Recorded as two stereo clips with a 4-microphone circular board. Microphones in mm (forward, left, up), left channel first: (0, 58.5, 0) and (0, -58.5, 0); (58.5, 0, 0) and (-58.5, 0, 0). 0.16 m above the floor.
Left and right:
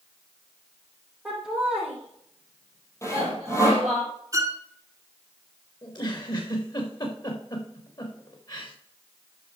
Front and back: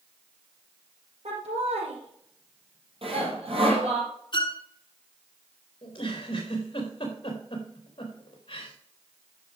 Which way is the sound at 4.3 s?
35° right.